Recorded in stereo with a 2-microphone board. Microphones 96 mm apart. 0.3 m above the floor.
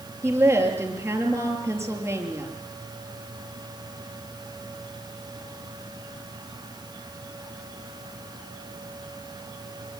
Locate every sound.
0.2 s a woman speaking: 25° right (ahead or behind), 6 m